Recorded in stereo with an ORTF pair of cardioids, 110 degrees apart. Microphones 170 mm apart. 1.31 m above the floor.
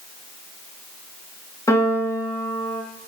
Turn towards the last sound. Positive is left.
turn(degrees=20)